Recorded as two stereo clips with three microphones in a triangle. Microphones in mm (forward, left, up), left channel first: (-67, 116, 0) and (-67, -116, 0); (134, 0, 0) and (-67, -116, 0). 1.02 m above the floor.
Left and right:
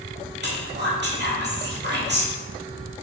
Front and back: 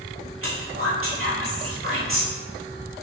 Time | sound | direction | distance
0.4 | whispering | 130° right | 2 m